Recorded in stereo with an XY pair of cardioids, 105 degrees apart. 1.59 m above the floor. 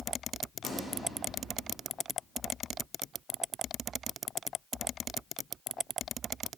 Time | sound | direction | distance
0.6 | a gunshot | 60° left | 5 m